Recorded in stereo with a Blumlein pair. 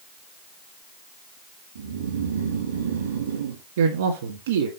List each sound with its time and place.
1.8 s snoring: 65° right, 2.0 m
3.8 s a man speaking: 60° right, 1.9 m